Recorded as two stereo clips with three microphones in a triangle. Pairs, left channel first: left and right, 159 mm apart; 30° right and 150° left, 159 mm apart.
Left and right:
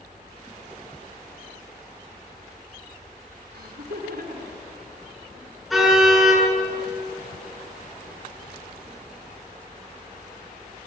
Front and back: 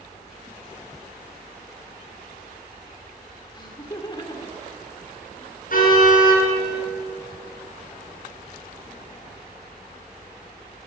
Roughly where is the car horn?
Ahead.